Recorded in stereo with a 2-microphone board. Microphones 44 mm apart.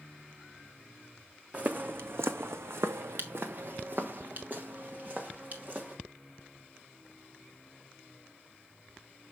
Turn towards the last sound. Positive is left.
turn(degrees=-40)  # may be behind; listen again after turning